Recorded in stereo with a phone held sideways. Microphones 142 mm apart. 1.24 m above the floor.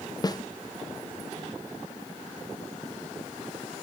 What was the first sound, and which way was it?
A snare drum, 25° left (ahead or behind).